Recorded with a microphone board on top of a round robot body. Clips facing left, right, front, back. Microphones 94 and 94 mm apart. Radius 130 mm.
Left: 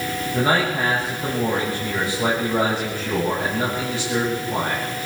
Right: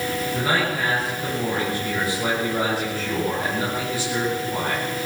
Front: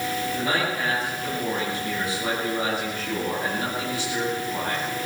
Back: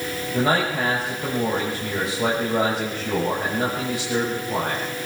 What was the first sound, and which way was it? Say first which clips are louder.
A man speaking: left 5 dB, back 8 dB; 160° left.